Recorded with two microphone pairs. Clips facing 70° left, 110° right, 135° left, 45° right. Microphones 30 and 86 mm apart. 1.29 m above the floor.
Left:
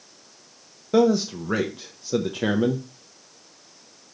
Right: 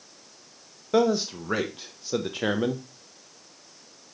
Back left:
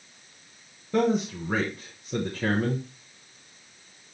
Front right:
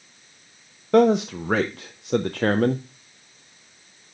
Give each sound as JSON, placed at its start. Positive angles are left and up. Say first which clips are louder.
{"t": 0.9, "sound": "a man speaking", "louder": "left 3 dB, front right 7 dB", "azimuth_deg": -30, "distance_m": 0.5}